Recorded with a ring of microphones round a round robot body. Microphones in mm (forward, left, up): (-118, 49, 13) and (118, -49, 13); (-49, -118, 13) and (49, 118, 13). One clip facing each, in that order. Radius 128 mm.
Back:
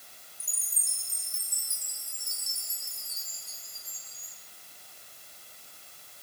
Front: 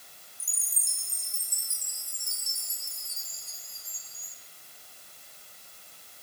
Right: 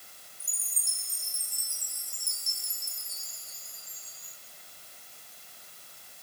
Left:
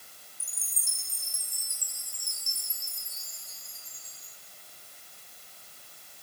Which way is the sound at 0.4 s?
15° right.